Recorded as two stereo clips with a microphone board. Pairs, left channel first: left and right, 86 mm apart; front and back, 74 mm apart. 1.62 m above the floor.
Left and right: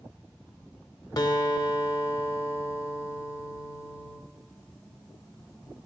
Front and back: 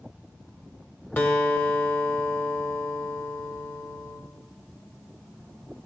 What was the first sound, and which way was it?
A guitar, 60° left.